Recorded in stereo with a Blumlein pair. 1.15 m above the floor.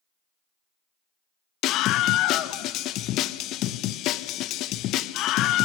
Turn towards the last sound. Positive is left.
turn(degrees=35)